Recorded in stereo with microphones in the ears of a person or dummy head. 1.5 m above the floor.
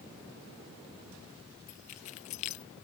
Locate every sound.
1.7 s keys jangling: 40° left (ahead or behind)